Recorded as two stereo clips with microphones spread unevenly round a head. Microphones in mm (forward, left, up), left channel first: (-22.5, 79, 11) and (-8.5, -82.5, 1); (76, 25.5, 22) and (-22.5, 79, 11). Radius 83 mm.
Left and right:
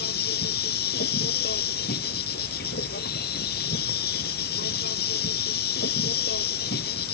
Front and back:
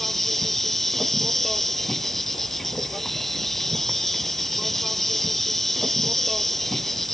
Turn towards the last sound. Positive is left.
turn(degrees=60)